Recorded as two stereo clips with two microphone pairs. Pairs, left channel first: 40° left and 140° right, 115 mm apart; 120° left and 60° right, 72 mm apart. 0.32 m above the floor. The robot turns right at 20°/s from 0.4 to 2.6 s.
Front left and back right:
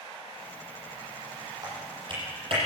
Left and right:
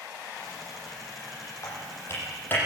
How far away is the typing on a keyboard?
About 10 m.